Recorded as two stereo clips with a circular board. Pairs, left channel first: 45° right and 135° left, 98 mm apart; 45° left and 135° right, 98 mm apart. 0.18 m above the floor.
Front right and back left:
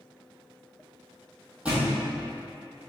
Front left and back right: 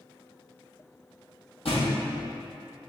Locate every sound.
1.6 s a thud: 55° left, 1.6 m